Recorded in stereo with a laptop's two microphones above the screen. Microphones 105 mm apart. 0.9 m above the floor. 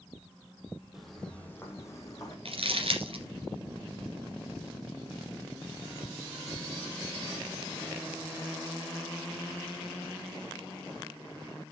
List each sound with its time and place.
0.9 s footsteps: 5° right (ahead or behind), 1.8 m; by 2.4 s 35° left (ahead or behind), 3 m
2.5 s crumpling: 65° right (ahead or behind), 2 m